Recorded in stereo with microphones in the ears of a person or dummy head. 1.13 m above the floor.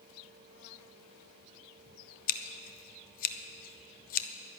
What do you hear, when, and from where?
2.3 s scissors: 45° left (ahead or behind), 0.8 m